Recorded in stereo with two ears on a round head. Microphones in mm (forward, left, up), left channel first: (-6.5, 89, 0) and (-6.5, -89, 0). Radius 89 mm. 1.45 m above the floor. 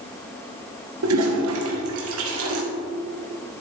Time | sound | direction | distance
1.0 | a toilet flushing | 70° right (ahead or behind) | 1.6 m